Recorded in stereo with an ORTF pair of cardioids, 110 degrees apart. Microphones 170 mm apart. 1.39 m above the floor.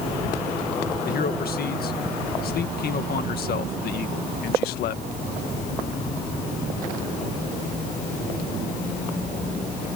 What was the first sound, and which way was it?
A man speaking, 65° left.